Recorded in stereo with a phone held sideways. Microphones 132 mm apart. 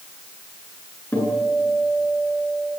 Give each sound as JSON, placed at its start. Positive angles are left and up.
{"t": 1.1, "sound": "a guitar", "side_deg": 15, "distance_m": 9.5}